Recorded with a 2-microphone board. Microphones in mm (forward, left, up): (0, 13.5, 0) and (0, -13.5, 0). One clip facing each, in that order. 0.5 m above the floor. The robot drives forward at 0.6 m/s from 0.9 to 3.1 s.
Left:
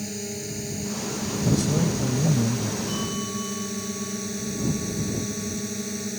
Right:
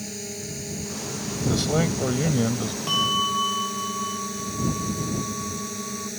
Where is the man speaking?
40° right (ahead or behind); by 2.8 s 50° right (ahead or behind).